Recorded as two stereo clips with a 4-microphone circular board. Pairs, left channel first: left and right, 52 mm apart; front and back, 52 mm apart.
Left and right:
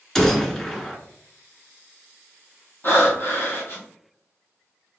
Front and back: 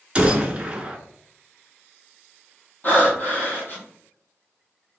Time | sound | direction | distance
0.1 | a gunshot | 165° left | 0.8 m
2.8 | breathing | 50° left | 1.4 m